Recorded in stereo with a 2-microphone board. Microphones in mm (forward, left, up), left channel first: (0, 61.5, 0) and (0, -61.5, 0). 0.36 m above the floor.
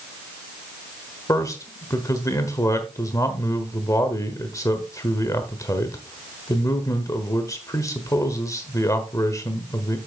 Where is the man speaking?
25° left (ahead or behind), 1.2 m.